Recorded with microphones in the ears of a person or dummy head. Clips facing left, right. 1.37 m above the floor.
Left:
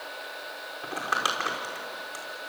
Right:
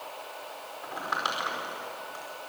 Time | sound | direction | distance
0.8 | crumpling | 45° left (ahead or behind) | 4.5 m